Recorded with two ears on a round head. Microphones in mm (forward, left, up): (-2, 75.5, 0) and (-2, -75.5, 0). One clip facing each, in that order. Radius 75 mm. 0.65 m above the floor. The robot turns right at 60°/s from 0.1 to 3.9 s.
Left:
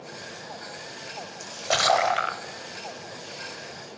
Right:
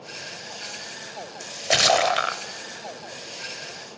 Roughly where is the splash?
Behind.